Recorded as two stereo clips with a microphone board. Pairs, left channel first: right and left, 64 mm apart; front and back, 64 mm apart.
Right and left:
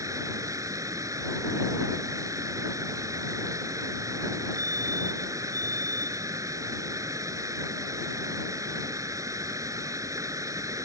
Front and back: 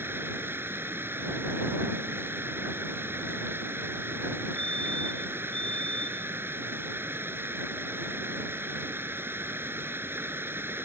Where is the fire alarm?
75° left.